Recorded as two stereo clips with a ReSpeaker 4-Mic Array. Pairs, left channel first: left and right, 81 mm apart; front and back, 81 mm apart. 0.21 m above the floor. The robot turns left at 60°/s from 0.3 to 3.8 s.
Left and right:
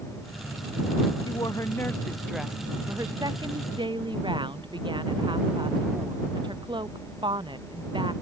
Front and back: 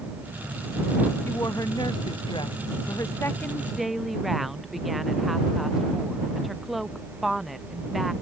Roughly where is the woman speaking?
Ahead left.